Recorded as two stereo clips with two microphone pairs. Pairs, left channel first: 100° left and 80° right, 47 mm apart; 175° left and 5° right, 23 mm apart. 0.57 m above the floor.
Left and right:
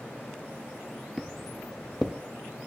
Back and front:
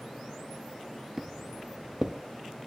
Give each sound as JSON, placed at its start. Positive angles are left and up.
{"t": 1.2, "sound": "footsteps", "azimuth_deg": 15, "distance_m": 0.5}